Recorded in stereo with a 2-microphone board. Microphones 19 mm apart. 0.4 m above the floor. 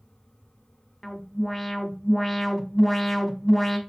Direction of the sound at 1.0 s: 10° left (ahead or behind).